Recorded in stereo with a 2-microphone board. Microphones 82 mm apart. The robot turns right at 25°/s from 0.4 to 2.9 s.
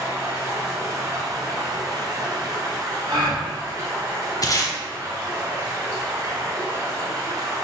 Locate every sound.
0.0 s running water: 125° right, 1.7 m; by 7.6 s 60° right, 1.7 m
3.1 s a gasp: 55° right (ahead or behind), 1.7 m
4.4 s tape being pulled: 45° left (ahead or behind), 0.7 m